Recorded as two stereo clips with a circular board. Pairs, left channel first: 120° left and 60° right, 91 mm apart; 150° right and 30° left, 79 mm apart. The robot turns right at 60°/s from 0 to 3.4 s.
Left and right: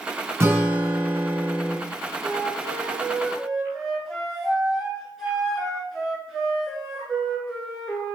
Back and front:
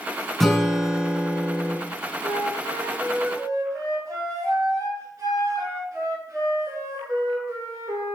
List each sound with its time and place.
0.4 s a guitar: 70° right, 1.2 m; by 1.8 s 15° left, 1.2 m
2.2 s a flute: 40° right, 2 m; by 8.2 s 30° left, 2 m